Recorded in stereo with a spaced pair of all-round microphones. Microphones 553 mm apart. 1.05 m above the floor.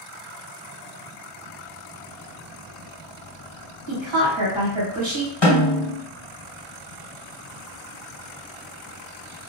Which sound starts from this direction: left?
A snare drum, at 5.4 s.